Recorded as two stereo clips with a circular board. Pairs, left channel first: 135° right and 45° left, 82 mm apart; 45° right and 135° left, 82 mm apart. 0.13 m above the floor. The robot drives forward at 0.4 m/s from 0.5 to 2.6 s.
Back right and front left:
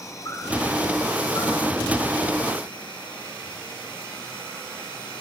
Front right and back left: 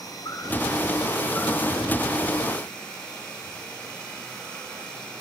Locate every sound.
0.0 s an insect: 85° right, 1.1 m; by 5.2 s 125° right, 1.3 m